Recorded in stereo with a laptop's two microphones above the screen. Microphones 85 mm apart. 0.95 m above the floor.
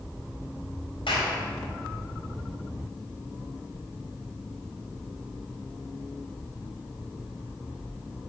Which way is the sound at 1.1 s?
85° left.